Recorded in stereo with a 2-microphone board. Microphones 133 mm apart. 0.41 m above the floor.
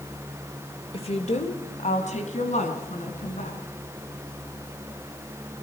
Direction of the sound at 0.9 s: 45° left (ahead or behind).